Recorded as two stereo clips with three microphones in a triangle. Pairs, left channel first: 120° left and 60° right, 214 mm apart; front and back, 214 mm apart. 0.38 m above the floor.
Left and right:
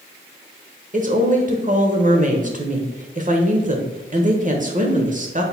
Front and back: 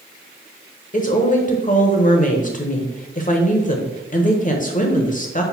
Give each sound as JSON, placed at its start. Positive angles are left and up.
{"t": 0.9, "sound": "a woman speaking", "azimuth_deg": -30, "distance_m": 1.1}